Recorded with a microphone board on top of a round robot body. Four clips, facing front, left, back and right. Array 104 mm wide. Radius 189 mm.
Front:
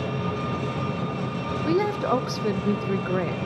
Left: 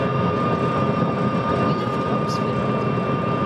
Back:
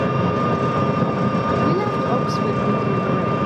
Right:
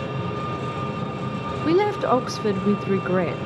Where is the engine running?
145° left, 1.1 m.